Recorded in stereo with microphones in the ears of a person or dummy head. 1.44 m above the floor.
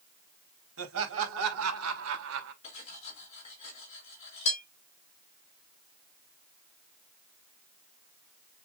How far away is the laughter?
About 2.5 m.